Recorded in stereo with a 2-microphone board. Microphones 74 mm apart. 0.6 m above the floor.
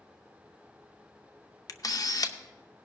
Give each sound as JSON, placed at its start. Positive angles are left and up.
{"t": 1.7, "sound": "a camera shutter", "side_deg": 55, "distance_m": 0.6}